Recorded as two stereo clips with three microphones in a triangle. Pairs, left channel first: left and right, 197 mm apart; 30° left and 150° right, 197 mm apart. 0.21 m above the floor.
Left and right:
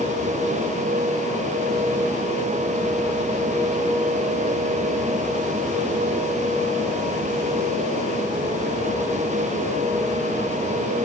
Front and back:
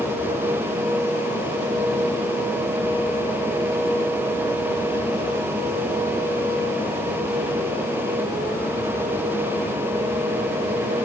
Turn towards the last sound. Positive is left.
No sound to turn to.